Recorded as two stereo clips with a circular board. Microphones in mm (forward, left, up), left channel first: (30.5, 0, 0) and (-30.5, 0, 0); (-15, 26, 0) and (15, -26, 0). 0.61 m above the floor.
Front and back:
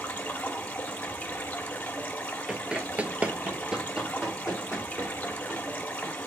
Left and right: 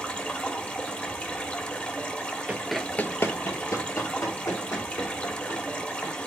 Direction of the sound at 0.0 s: 60° left.